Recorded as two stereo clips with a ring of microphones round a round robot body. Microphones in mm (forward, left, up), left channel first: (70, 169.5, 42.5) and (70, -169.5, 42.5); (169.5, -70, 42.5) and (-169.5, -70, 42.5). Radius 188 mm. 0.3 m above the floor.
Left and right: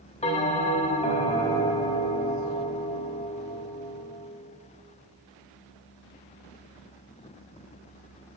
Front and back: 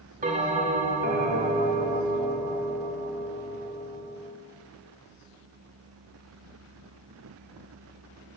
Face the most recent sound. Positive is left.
turn(degrees=140)